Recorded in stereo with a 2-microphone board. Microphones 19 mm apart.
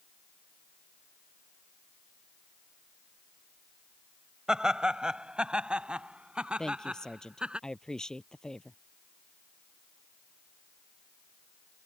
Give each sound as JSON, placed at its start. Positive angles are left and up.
{"t": 4.5, "sound": "laughter", "side_deg": -45}
{"t": 6.6, "sound": "a woman speaking", "side_deg": 40}